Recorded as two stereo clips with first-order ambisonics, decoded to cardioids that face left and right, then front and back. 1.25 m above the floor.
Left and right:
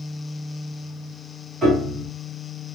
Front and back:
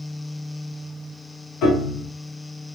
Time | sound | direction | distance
1.6 | a piano | 20° right | 1.7 m